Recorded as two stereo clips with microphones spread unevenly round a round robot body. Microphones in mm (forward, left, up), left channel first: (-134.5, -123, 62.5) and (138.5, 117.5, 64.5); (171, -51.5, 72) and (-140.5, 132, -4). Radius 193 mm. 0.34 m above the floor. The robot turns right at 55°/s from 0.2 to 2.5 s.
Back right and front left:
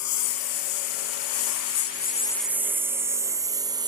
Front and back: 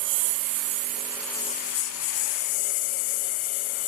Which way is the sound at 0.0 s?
175° left.